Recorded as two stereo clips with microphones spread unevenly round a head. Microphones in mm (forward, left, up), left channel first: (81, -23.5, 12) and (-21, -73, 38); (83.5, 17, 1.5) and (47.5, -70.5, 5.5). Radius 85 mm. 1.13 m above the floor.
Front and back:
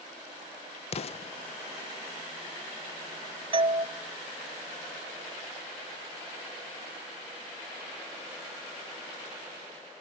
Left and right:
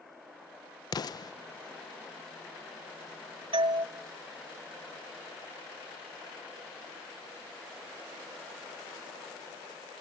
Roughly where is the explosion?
Ahead left.